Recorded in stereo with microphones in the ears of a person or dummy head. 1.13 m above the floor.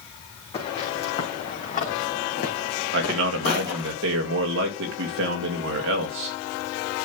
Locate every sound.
0.5 s footsteps: 30° left (ahead or behind), 4 m; by 3.9 s 60° left (ahead or behind), 3 m
2.9 s a man speaking: 60° right (ahead or behind), 2 m